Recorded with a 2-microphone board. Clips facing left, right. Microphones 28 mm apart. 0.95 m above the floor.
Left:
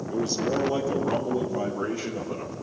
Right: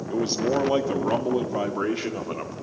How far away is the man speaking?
About 2.0 m.